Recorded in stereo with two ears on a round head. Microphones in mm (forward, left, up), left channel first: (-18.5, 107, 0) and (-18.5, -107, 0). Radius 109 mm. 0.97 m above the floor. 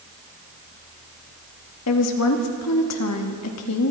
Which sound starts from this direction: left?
A woman speaking, at 1.9 s.